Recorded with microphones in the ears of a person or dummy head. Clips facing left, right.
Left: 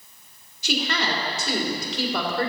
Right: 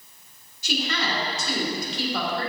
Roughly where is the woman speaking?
Left.